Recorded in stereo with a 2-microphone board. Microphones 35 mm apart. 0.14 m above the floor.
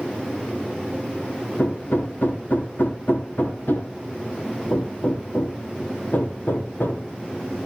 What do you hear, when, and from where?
1.6 s hammering: 65° left (ahead or behind), 2.5 m